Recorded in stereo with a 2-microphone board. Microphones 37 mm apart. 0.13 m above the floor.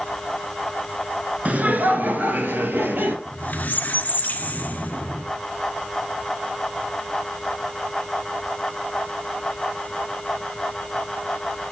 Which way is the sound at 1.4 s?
40° right (ahead or behind).